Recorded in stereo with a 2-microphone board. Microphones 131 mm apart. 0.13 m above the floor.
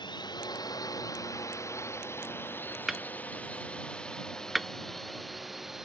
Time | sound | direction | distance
0.0 | a drone | 35° left (ahead or behind) | ?
2.9 | hammering | centre (ahead or behind) | ?